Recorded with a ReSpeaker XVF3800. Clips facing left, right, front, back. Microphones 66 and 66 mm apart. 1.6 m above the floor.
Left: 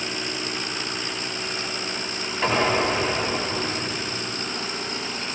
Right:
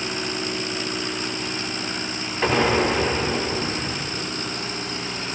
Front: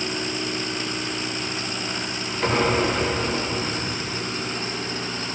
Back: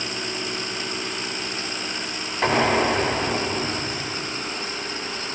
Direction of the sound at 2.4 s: 165° right.